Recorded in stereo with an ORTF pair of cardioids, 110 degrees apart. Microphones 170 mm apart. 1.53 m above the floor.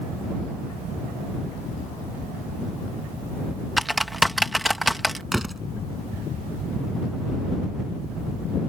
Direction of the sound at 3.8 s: Straight ahead.